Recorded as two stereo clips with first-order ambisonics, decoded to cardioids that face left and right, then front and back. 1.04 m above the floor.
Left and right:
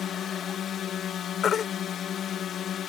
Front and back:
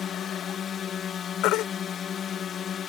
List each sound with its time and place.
0.0 s a drone: 45° left
1.4 s a baby crying: 25° left